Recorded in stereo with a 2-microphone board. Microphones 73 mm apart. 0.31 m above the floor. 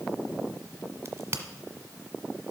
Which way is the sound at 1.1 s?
35° right (ahead or behind).